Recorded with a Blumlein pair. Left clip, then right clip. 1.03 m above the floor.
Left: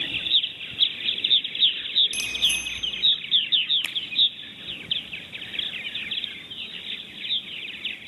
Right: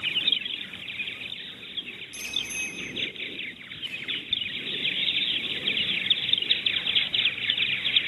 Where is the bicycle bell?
35° left, 3.5 m.